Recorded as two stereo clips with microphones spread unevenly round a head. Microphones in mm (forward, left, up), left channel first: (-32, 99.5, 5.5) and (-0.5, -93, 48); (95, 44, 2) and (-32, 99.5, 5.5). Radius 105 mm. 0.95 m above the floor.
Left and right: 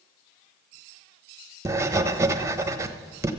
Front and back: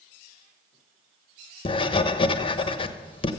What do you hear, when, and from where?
1.6 s writing: 5° left, 1.0 m